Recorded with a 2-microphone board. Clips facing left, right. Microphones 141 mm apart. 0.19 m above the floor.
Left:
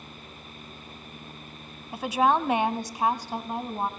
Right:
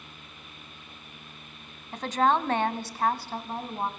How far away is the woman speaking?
About 1.2 m.